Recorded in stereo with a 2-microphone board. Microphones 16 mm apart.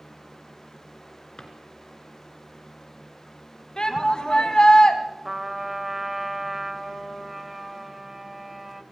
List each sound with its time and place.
1.4 s a drawer: 55° left (ahead or behind), 2.5 m
3.8 s a shout: 65° left (ahead or behind), 2 m
5.2 s a trumpet: 15° right (ahead or behind), 1.0 m